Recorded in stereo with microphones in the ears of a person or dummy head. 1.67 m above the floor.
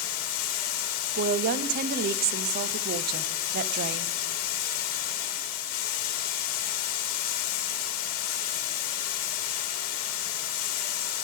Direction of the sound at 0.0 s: 50° left (ahead or behind).